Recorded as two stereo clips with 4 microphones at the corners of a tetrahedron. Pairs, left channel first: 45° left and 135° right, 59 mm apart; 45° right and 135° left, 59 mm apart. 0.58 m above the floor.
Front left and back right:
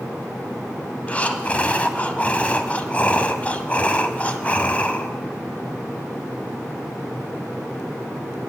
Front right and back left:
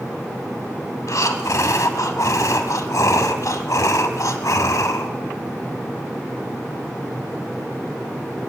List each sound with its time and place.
1.1 s breathing: 20° right, 1.1 m